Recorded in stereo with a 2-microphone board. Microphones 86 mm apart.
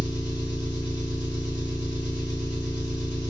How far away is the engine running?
About 2 m.